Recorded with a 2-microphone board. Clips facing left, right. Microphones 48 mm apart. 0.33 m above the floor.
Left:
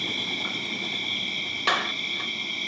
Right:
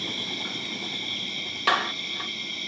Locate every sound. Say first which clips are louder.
0.0 s an insect: left 3 dB; 30° left (ahead or behind), 2.5 m
1.7 s a clap: right 2 dB; centre (ahead or behind), 1.1 m